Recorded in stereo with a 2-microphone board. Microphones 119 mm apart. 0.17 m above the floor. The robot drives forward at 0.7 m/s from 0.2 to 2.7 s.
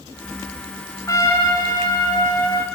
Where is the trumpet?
30° left (ahead or behind), 1.8 m.